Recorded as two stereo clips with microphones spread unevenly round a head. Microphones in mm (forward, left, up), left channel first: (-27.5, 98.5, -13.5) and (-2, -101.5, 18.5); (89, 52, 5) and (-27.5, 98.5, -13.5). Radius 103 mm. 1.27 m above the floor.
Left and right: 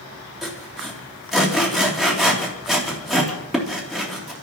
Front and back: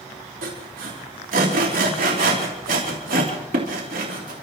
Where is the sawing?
175° right, 3 m.